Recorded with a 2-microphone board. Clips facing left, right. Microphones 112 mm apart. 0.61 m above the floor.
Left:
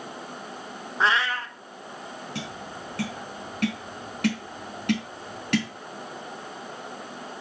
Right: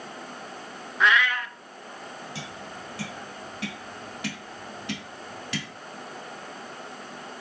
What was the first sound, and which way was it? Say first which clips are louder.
A cat meowing: right 1 dB; 30° left (ahead or behind).